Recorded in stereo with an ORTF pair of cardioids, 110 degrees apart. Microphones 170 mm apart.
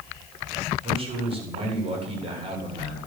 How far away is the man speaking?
About 8.5 m.